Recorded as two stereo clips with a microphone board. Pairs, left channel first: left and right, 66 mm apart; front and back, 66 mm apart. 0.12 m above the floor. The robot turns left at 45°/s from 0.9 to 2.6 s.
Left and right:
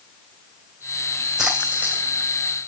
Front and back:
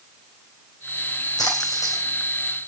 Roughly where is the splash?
Ahead.